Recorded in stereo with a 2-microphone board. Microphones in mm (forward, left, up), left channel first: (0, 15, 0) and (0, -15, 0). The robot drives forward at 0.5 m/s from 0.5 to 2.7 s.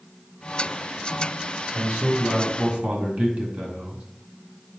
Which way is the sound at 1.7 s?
50° right (ahead or behind).